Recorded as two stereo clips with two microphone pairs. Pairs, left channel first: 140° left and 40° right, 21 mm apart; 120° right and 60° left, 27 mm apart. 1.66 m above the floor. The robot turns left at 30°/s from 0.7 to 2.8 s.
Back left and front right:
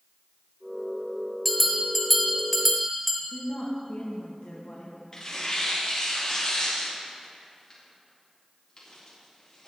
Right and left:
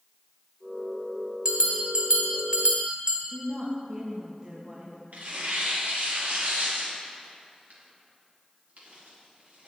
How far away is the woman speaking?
About 1.9 m.